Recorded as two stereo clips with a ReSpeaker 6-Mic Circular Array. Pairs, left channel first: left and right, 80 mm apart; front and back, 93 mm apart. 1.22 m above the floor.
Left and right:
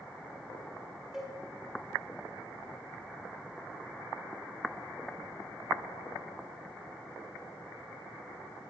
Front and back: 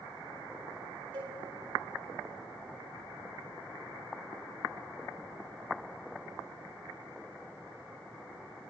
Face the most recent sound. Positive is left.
turn(degrees=-175)